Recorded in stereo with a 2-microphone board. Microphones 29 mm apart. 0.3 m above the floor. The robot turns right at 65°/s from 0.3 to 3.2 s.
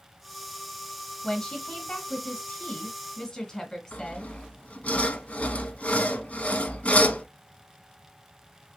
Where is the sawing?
60° left (ahead or behind), 0.7 m.